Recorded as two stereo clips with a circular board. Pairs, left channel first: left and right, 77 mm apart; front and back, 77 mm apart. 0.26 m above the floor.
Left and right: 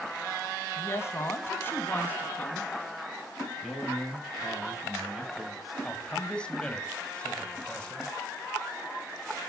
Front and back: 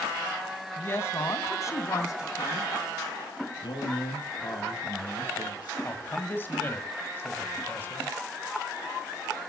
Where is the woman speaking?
55° left, 1.9 m; by 2.7 s 25° left, 2.5 m.